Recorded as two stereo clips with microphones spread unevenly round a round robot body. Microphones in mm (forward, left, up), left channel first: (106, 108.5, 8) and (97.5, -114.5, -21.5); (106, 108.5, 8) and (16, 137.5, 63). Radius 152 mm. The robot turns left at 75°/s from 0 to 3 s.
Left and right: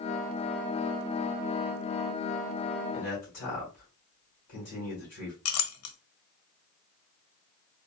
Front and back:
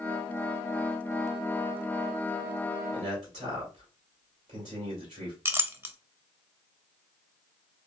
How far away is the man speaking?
About 2 m.